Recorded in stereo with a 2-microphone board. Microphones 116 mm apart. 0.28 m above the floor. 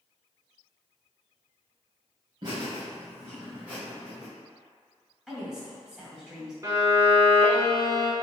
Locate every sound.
2.4 s laughter: 40° right (ahead or behind), 1.6 m; by 4.3 s centre (ahead or behind), 1.7 m
5.3 s a woman speaking: 5° right (ahead or behind), 1.9 m
6.6 s a violin: 30° right (ahead or behind), 1.1 m